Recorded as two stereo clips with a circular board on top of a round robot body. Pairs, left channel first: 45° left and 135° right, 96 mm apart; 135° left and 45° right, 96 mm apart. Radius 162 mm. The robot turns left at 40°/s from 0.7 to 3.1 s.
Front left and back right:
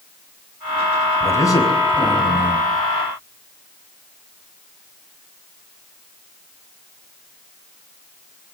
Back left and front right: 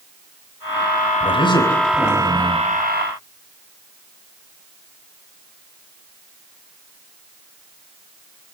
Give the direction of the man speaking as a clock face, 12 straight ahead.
8 o'clock.